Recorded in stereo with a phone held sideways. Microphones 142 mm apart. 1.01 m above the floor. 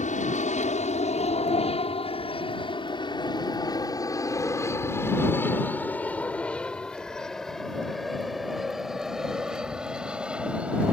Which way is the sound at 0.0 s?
60° left (ahead or behind).